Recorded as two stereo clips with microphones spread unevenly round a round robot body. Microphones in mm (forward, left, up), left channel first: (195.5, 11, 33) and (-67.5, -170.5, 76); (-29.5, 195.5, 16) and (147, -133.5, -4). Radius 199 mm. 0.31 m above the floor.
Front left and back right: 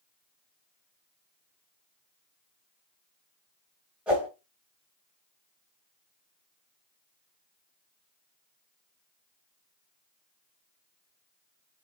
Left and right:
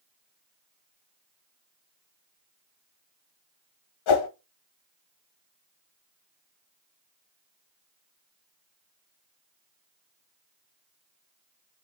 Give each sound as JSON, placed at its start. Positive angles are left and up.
{"t": 4.1, "sound": "a whoosh", "azimuth_deg": 125, "distance_m": 1.4}